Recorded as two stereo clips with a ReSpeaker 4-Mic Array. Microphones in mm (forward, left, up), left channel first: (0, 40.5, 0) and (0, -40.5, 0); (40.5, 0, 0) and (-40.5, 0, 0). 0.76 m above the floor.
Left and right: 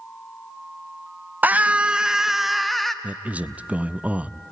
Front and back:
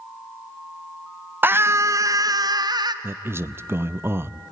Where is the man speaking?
150° right, 0.5 m.